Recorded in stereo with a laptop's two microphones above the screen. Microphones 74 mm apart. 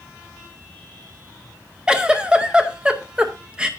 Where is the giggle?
15° right (ahead or behind), 0.6 m.